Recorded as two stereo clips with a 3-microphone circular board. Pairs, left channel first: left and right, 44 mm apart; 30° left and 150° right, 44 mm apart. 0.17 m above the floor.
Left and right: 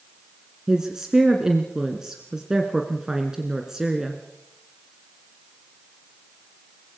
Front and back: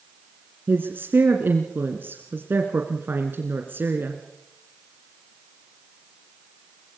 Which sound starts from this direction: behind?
A woman speaking, at 0.7 s.